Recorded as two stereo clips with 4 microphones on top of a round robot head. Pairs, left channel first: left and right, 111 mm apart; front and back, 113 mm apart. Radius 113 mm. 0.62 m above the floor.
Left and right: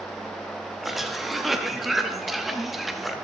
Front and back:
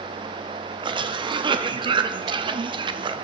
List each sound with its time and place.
0.8 s a cough: straight behind, 0.9 m